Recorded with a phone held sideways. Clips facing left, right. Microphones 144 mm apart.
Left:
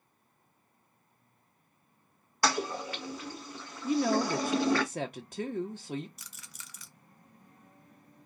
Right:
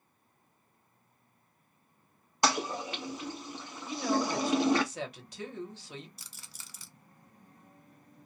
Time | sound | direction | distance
2.4 | a toilet flushing | 20° right (ahead or behind) | 0.8 m
3.8 | a woman speaking | 50° left (ahead or behind) | 0.6 m
6.2 | a rattle | 30° right (ahead or behind) | 0.5 m